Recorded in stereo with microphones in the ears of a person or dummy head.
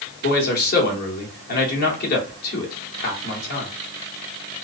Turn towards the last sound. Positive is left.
turn(degrees=55)  # may be behind; listen again after turning